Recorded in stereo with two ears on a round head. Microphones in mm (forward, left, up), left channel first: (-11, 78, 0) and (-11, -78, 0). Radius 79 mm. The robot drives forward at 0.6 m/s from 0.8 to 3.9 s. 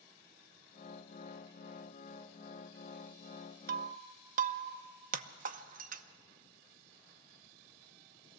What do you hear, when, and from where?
3.7 s breaking glass: 55° right (ahead or behind), 0.7 m; by 6.0 s 50° right (ahead or behind), 0.7 m